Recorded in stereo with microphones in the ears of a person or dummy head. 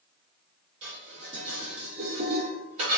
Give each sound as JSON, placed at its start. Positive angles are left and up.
{"t": 0.8, "sound": "dishes clattering", "side_deg": -35, "distance_m": 1.1}